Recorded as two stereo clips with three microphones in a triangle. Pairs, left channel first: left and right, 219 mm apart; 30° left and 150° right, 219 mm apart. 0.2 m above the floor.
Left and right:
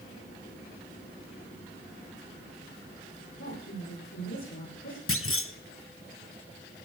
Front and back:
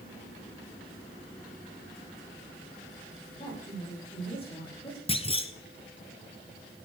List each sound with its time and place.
3.4 s a woman speaking: 95° left, 8.5 m
5.1 s a clunk: 90° left, 0.7 m